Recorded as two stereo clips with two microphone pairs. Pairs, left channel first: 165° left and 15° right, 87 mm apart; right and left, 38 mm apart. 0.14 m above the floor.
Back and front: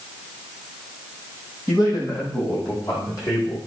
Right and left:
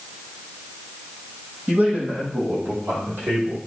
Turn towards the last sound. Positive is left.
turn(degrees=120)